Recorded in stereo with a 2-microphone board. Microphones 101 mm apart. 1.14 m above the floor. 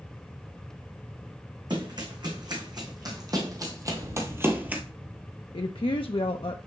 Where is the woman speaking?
65° left (ahead or behind), 0.6 m.